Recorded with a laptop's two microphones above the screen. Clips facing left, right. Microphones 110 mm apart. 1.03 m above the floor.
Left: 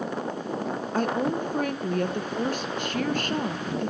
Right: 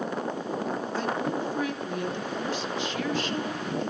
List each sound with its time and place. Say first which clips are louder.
0.9 s a woman speaking: left 5 dB; 50° left (ahead or behind), 0.5 m